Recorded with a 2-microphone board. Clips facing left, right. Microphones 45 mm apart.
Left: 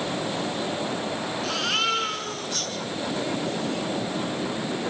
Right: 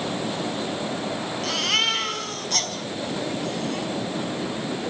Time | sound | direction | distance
1.4 | a baby crying | 60° right (ahead or behind) | 5.5 m